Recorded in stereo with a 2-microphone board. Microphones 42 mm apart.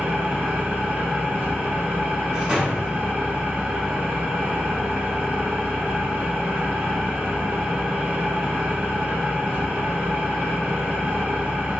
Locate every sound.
0.0 s an engine running: 55° right (ahead or behind), 1.1 m
2.3 s a door slam: 15° right (ahead or behind), 1.2 m